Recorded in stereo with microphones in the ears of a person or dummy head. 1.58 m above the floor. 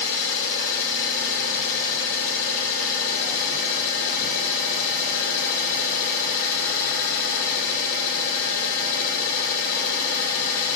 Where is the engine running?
45° left (ahead or behind), 1.1 m.